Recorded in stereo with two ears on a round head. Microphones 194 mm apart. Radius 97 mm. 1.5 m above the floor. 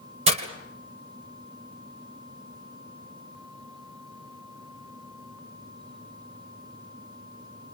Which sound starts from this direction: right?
Breaking glass, at 0.3 s.